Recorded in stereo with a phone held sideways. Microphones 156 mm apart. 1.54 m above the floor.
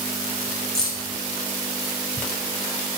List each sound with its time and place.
0.8 s keys jangling: 5° left (ahead or behind), 5 m